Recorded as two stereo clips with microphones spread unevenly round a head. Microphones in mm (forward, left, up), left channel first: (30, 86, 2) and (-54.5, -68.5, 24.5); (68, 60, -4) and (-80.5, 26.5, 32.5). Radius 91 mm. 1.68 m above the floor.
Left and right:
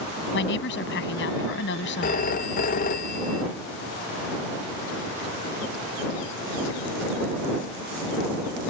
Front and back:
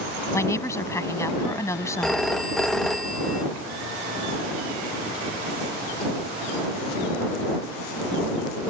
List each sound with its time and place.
0.3 s a woman speaking: 85° left
2.0 s a phone ringing: 105° left